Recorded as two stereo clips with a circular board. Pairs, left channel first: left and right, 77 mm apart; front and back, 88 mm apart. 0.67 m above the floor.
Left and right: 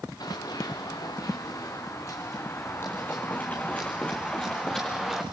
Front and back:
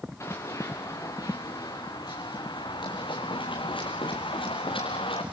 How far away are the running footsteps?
About 4 m.